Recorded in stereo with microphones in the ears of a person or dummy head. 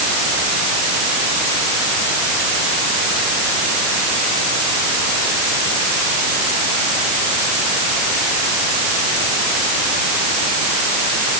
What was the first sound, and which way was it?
Only background noise.